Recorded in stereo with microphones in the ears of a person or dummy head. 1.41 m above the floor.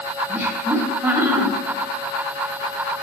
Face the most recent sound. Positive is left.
turn(degrees=-10)  # may be behind; listen again after turning